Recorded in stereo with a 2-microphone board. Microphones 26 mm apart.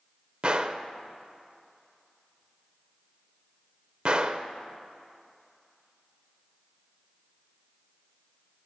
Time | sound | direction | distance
0.4 | a gunshot | 40° right (ahead or behind) | 0.6 m